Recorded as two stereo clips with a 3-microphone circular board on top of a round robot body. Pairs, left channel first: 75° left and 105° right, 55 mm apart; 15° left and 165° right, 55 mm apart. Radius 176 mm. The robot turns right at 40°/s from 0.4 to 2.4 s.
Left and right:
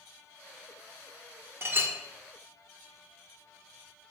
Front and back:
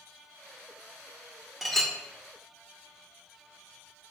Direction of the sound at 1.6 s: 80° right.